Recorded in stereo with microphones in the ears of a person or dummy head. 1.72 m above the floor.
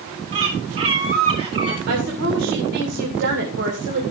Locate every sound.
0.3 s a bird: 30° right (ahead or behind), 1.9 m
1.9 s a woman speaking: 55° right (ahead or behind), 2 m